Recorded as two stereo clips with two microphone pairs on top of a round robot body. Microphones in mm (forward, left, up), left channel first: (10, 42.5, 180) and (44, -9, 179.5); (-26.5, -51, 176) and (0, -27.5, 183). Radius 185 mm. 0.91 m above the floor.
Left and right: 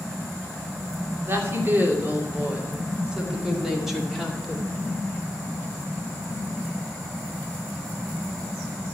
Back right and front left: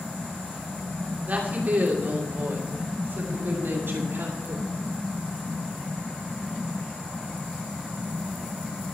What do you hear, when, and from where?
1.3 s a woman speaking: 5° right, 2.5 m; by 4.7 s 40° left, 2.5 m